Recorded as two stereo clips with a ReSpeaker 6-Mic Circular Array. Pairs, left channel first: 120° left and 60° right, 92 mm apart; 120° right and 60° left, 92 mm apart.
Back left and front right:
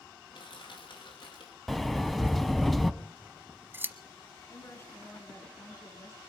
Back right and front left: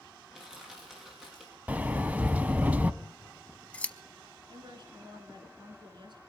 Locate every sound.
0.3 s crushing: 145° left, 5.5 m
1.7 s a sliding door: 30° left, 0.6 m
3.0 s scissors: 65° right, 0.7 m
4.5 s a woman speaking: 70° left, 2.5 m